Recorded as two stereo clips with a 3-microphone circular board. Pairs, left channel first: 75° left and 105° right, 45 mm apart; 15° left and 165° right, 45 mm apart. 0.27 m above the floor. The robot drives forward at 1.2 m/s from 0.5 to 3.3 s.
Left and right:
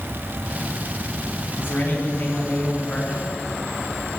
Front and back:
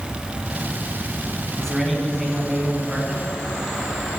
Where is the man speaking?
90° left, 2.5 m; by 3.2 s 135° left, 3 m.